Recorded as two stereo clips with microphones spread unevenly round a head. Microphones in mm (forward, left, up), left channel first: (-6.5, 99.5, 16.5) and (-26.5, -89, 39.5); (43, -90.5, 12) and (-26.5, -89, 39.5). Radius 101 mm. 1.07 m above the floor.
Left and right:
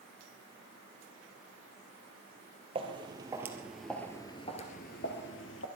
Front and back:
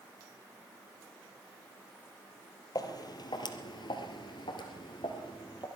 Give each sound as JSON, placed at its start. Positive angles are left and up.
{"t": 2.8, "sound": "footsteps", "azimuth_deg": -40, "distance_m": 2.0}